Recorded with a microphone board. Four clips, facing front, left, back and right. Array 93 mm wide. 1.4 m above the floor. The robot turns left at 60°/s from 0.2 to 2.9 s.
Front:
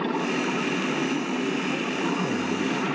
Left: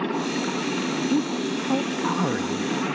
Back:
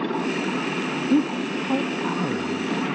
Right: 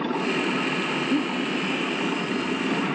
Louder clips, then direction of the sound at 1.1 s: Even, back 5 dB; 170° left.